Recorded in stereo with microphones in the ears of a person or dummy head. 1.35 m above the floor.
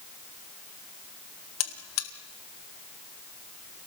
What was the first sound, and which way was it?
A buzzer, 80° left.